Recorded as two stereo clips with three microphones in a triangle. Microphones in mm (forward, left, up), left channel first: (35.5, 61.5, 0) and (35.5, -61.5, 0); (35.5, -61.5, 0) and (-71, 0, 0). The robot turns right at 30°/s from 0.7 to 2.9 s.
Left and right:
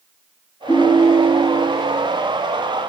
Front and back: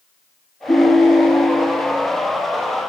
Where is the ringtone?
30° left, 2 m; by 1.7 s 60° left, 2 m.